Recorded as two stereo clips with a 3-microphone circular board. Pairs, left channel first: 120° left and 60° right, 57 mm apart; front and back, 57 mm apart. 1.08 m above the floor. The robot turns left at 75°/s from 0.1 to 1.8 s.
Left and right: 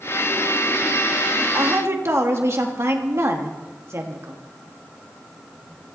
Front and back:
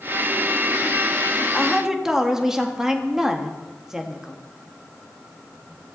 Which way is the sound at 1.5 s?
80° right.